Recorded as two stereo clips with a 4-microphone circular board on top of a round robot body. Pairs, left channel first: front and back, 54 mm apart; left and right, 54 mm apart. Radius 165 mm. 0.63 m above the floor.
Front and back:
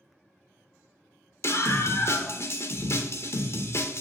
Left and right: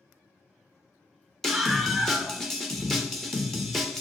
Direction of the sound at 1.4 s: 5° left.